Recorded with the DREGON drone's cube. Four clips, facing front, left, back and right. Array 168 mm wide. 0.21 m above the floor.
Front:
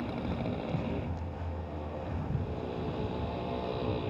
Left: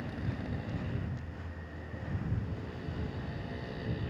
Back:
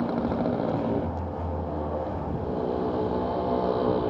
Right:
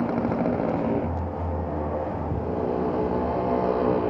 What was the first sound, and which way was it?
A motorcycle, 120° right.